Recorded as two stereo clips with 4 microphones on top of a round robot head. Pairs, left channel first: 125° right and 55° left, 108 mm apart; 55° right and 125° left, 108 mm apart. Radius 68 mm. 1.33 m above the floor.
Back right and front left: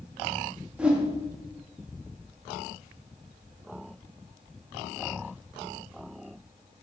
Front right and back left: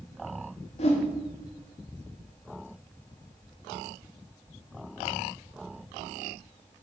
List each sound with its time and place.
0.8 s a whoosh: 25° right, 2 m